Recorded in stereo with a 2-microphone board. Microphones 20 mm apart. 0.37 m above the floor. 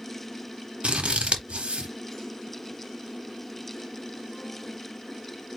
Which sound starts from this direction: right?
Scissors, at 0.8 s.